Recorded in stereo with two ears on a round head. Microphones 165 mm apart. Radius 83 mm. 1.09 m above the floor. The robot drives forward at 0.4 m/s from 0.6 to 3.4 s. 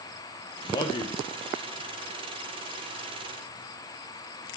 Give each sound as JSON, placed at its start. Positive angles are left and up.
{"t": 0.6, "sound": "a man speaking", "side_deg": 20, "distance_m": 0.7}